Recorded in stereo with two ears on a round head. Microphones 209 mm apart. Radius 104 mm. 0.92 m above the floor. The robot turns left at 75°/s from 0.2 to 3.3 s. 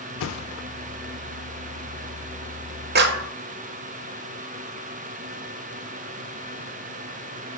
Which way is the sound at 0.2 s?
55° left (ahead or behind).